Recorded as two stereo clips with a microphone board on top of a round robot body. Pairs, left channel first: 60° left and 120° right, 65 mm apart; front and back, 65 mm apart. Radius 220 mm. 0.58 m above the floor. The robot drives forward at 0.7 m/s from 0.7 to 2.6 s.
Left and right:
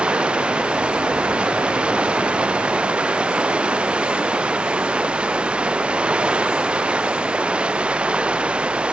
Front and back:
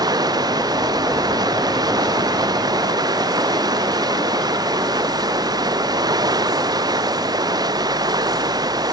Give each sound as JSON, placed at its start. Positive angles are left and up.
{"t": 0.0, "sound": "running water", "azimuth_deg": 165}